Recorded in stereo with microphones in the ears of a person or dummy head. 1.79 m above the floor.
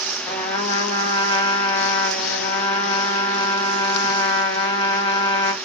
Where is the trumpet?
20° left (ahead or behind), 0.9 m.